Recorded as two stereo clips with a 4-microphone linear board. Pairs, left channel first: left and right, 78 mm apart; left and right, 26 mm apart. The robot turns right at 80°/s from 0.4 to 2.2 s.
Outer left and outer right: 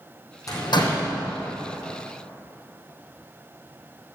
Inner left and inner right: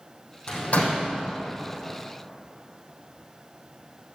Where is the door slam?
45° left (ahead or behind), 4 m; by 1.1 s 70° left (ahead or behind), 4 m.